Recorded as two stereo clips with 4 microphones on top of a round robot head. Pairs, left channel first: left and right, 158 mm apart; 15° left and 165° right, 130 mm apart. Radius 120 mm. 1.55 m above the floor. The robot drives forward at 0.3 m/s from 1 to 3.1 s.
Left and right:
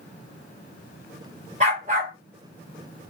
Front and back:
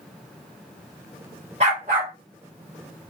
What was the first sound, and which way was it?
A dog barking, 130° right.